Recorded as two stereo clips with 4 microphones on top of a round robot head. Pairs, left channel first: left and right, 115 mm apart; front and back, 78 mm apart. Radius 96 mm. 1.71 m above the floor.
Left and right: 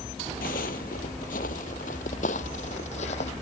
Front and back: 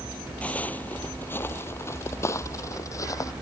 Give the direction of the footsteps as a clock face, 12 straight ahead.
10 o'clock.